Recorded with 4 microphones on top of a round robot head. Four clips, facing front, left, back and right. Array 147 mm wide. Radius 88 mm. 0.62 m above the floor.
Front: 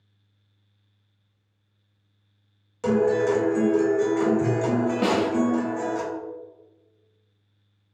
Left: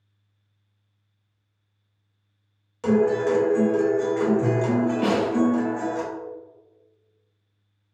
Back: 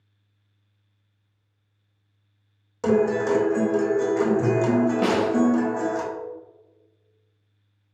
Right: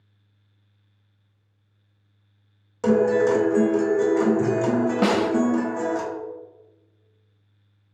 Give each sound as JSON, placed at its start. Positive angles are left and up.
{"t": 2.8, "sound": "a guitar", "azimuth_deg": -130, "distance_m": 1.3}
{"t": 5.0, "sound": "a snare drum", "azimuth_deg": -90, "distance_m": 0.8}